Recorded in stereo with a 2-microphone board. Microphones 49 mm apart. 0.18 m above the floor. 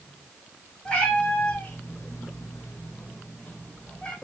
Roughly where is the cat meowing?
Centre.